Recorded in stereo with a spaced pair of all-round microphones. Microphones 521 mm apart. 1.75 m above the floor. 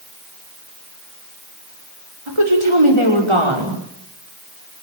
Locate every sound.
2.3 s a woman speaking: 75° right (ahead or behind), 6 m